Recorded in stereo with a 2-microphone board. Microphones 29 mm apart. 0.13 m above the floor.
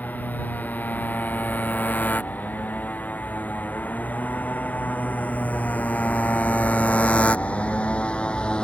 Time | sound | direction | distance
0.0 | a motorcycle | 75° left (ahead or behind) | ?